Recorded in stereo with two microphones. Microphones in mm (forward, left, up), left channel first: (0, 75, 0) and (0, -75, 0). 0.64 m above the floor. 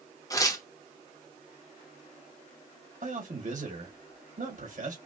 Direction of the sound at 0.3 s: 25° left (ahead or behind).